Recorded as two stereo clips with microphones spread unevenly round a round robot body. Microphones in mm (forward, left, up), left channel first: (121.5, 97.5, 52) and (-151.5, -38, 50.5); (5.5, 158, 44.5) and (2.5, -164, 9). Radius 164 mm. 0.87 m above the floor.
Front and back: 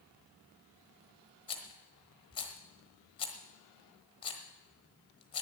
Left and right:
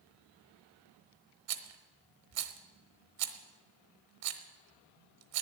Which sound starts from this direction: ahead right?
A rattle, at 1.5 s.